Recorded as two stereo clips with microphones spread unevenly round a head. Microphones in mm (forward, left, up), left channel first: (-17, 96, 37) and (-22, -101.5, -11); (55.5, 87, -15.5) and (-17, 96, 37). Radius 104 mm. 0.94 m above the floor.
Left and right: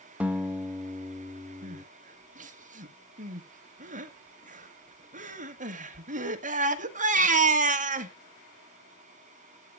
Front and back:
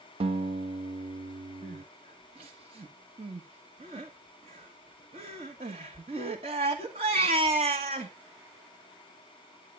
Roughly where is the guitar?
Behind right.